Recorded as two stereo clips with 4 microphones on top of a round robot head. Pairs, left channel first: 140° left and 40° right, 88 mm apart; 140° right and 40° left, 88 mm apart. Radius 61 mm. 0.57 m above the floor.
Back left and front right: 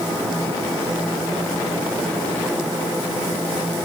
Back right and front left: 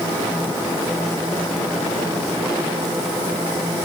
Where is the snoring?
I don't hear snoring.